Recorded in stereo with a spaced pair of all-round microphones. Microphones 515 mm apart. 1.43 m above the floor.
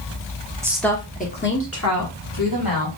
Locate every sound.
0.6 s a woman speaking: 5° right (ahead or behind), 0.9 m; by 2.9 s 45° left (ahead or behind), 2 m